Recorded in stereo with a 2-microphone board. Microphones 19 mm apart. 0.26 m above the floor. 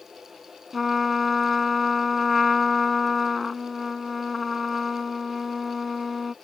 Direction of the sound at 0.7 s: Centre (ahead or behind).